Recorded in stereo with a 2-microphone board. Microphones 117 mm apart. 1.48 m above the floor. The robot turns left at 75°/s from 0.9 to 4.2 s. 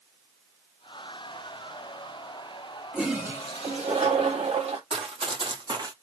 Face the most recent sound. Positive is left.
turn(degrees=-35)  # may be behind; listen again after turning